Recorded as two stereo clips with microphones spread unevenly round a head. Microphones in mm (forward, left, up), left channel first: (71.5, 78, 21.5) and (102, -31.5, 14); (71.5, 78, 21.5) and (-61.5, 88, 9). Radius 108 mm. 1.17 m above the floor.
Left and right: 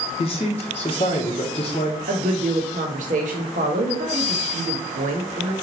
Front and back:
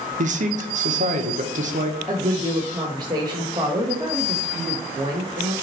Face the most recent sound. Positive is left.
turn(degrees=-110)